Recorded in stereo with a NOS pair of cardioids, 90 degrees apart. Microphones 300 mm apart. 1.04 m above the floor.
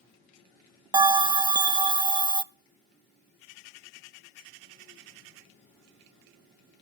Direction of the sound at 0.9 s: 15° right.